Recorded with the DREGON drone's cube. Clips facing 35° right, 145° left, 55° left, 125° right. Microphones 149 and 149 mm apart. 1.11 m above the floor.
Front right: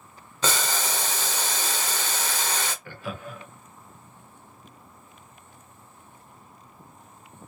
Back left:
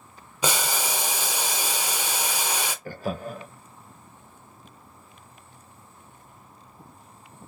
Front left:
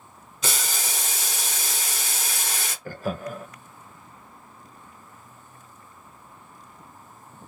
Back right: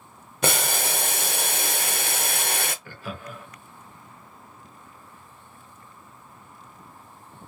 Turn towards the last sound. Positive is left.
turn(degrees=100)